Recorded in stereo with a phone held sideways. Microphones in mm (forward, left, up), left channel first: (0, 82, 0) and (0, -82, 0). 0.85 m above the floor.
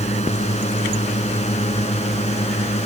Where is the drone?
40° left (ahead or behind).